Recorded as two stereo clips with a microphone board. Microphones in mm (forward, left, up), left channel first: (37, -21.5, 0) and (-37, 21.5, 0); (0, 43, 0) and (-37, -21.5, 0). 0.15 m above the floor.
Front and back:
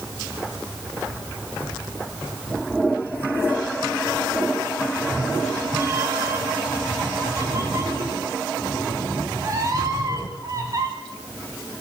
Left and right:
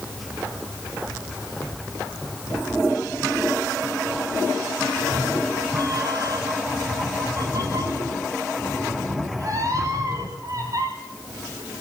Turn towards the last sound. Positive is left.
turn(degrees=-160)